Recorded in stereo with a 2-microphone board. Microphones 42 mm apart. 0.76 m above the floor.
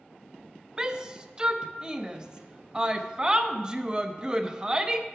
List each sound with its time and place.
0.8 s a shout: 20° right (ahead or behind), 0.6 m